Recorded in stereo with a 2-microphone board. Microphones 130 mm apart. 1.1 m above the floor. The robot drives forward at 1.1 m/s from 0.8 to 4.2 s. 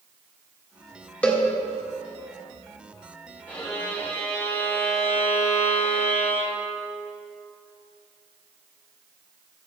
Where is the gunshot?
No gunshot in this recording.